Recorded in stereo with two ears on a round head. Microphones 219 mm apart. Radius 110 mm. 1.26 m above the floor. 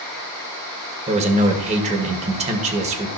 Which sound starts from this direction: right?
A man speaking, at 1.1 s.